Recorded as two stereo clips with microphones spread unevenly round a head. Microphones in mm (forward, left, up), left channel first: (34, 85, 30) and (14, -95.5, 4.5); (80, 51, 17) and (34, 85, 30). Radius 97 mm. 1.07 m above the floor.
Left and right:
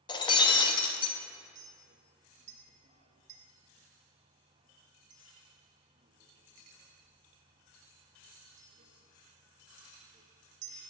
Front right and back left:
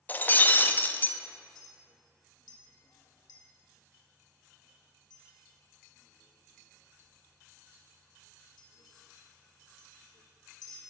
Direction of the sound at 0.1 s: 30° left.